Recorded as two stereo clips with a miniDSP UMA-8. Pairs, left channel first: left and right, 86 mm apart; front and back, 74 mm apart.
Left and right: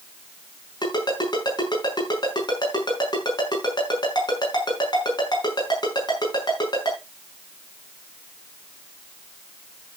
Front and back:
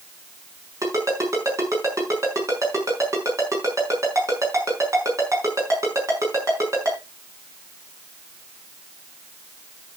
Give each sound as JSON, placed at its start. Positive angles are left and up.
{"t": 0.8, "sound": "a ringtone", "azimuth_deg": 130, "distance_m": 6.0}